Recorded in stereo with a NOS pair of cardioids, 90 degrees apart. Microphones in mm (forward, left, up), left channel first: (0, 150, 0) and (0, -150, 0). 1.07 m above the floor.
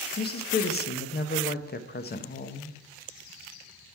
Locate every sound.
0.2 s a woman speaking: 35° left, 0.9 m